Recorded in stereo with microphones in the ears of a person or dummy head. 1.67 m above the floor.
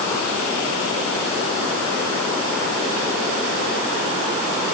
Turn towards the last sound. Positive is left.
No sound to turn to.